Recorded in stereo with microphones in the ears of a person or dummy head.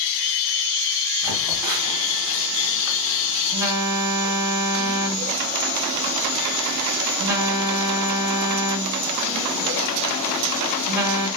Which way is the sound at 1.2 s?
5° right (ahead or behind).